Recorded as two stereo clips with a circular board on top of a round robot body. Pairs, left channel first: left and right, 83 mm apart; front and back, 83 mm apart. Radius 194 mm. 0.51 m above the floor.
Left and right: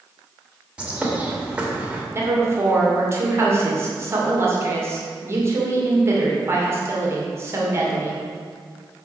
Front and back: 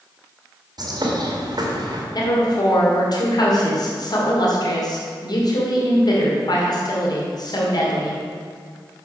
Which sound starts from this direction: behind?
A bird, at 0.8 s.